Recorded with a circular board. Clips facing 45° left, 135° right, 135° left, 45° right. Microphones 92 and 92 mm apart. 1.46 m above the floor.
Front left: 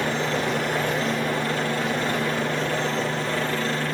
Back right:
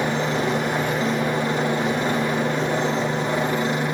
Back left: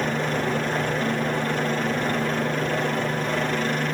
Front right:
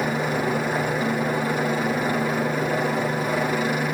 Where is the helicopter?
105° right.